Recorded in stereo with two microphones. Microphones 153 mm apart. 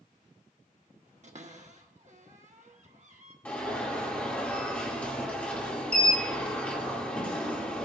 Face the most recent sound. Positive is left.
turn(degrees=10)  # may be behind; listen again after turning